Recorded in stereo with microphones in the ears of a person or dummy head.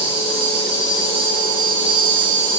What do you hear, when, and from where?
0.0 s an insect: 60° right (ahead or behind), 5 m